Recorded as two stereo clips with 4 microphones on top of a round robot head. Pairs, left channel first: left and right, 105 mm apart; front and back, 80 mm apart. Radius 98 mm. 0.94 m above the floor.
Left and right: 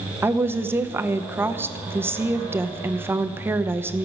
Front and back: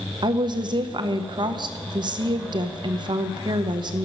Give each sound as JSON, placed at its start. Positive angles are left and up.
{"t": 0.2, "sound": "a woman speaking", "azimuth_deg": -160, "distance_m": 0.8}